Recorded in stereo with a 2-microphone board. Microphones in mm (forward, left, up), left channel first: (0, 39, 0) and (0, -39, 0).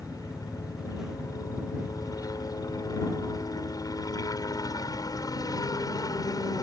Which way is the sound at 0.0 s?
50° left (ahead or behind).